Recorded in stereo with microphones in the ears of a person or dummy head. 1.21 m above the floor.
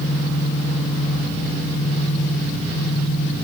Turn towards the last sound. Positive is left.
turn(degrees=50)  # may be behind; listen again after turning